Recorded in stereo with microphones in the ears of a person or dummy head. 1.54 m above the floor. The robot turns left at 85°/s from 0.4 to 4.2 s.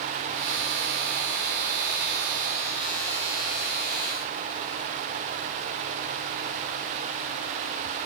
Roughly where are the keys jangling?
No keys jangling in this recording.